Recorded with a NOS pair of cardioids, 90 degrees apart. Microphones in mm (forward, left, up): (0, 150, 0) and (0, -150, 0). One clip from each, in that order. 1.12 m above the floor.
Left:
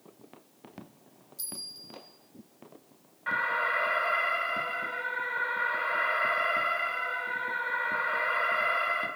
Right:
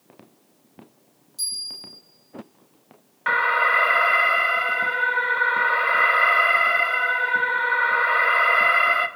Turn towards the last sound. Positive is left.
turn(degrees=-65)